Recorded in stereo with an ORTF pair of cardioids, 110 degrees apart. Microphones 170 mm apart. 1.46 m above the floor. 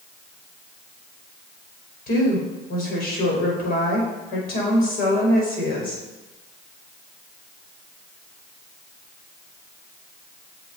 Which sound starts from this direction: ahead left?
A woman speaking, at 2.1 s.